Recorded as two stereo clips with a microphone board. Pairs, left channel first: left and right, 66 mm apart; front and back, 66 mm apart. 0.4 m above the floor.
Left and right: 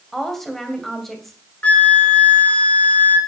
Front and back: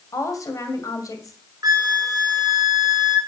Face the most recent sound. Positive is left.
turn(degrees=155)